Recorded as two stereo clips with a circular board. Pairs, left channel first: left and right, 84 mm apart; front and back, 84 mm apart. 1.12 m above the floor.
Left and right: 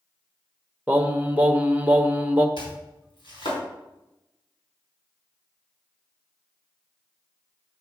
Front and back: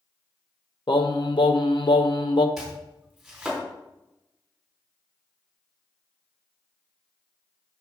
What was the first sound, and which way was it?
Singing, 20° right.